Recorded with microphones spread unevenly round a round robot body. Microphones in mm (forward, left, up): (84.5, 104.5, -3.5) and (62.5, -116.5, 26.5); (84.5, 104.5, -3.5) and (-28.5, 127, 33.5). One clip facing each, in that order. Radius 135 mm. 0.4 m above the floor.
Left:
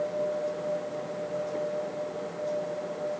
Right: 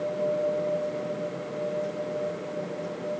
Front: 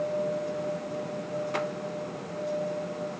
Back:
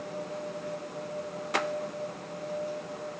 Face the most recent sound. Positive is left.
No sound to turn to.